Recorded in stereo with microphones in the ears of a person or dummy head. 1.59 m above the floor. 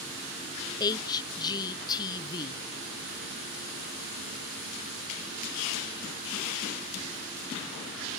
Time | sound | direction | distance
0.8 | a woman speaking | 20° left (ahead or behind) | 0.8 m